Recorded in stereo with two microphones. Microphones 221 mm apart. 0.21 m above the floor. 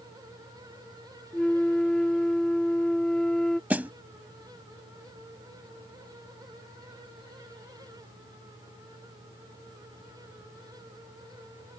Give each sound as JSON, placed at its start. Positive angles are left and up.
{"t": 1.3, "sound": "a flute", "side_deg": 5}
{"t": 3.7, "sound": "a snare drum", "side_deg": -5}